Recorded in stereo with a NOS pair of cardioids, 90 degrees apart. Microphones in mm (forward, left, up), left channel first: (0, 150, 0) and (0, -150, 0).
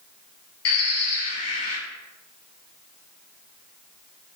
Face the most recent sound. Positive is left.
turn(degrees=60)